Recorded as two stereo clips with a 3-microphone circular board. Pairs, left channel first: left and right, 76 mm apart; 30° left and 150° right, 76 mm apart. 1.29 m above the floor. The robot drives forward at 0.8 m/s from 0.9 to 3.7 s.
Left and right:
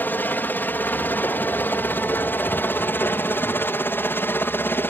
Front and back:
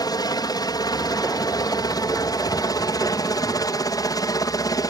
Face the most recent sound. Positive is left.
turn(degrees=35)